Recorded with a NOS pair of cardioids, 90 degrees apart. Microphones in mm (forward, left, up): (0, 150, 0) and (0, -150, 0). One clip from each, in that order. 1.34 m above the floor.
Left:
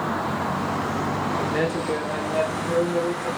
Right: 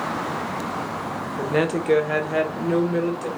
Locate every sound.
1.4 s a woman speaking: 25° right, 0.7 m; by 3.3 s 70° right, 1.3 m